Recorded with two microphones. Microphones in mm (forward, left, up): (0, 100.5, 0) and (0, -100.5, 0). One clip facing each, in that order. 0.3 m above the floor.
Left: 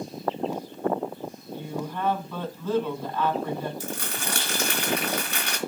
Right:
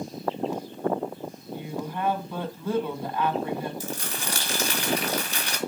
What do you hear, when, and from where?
1.5 s a woman speaking: 10° right (ahead or behind), 2.5 m
3.8 s crumpling: 60° left (ahead or behind), 3 m